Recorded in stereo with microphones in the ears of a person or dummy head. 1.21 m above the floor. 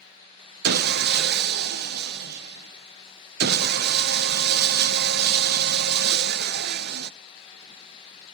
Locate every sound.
0.6 s sawing: 60° right (ahead or behind), 1.1 m